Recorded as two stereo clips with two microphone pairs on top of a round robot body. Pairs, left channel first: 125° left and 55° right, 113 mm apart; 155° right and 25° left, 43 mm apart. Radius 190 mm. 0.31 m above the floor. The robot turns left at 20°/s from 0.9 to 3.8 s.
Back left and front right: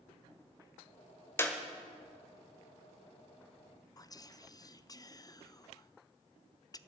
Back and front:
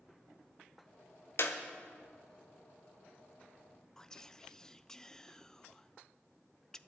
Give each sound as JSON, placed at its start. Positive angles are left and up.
{"t": 1.4, "sound": "a clap", "azimuth_deg": -165, "distance_m": 1.6}
{"t": 4.0, "sound": "whispering", "azimuth_deg": 140, "distance_m": 0.9}